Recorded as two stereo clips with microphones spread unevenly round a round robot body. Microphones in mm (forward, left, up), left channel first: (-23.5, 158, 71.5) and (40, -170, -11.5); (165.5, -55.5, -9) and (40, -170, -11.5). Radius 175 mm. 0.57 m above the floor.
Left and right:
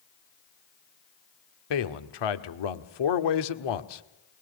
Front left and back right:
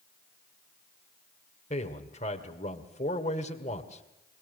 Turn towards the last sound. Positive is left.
turn(degrees=105)